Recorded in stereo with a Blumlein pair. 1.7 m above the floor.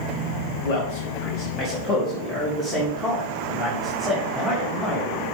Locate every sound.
0.7 s a man speaking: 50° left, 1.6 m; by 5.2 s 10° left, 5 m